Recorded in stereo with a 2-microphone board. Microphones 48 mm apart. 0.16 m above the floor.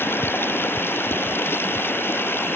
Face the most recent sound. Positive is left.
turn(degrees=55)  # may be behind; listen again after turning